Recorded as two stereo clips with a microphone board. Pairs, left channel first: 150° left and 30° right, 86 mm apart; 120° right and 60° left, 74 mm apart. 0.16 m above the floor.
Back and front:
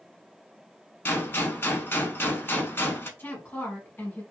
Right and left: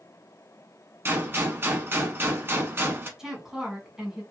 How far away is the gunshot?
About 0.5 m.